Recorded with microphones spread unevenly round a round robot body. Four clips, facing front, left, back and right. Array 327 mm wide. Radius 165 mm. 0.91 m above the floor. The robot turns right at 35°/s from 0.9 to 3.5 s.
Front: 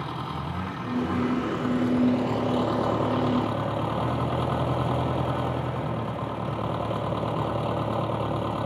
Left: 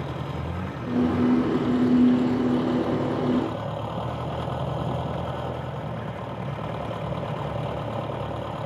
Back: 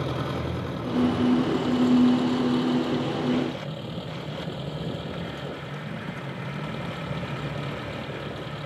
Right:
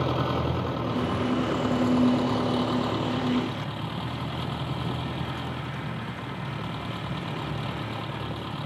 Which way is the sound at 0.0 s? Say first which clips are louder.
Right 6 dB, back 3 dB; 95° right.